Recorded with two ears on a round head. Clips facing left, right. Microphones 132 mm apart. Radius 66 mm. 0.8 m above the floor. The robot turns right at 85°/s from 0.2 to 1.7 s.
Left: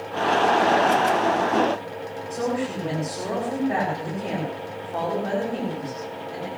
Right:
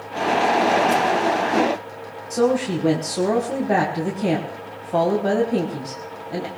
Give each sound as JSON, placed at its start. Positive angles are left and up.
{"t": 2.3, "sound": "a woman speaking", "side_deg": -60, "distance_m": 5.5}